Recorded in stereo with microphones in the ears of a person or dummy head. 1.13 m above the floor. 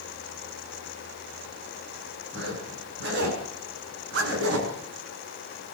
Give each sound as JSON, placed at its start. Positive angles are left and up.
{"t": 2.3, "sound": "a zipper", "side_deg": -65, "distance_m": 6.5}